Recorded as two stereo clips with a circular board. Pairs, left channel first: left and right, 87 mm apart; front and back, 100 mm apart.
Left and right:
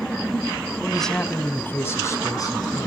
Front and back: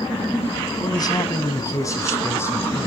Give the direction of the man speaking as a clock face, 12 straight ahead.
12 o'clock.